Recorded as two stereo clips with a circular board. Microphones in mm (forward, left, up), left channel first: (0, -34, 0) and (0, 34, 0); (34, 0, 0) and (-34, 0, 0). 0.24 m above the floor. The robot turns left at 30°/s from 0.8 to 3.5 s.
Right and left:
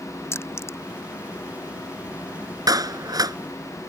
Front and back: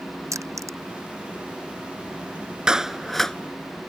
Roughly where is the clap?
Left.